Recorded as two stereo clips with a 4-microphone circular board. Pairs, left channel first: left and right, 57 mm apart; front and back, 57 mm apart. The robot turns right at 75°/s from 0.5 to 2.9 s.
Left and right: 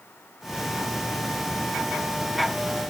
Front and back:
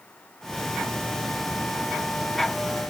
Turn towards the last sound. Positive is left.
No sound to turn to.